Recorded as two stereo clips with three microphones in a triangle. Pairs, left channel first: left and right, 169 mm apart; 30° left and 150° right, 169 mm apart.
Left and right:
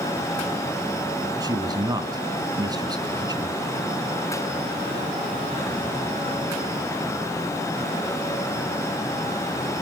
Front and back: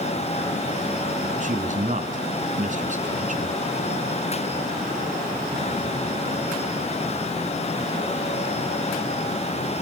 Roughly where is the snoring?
No snoring in this recording.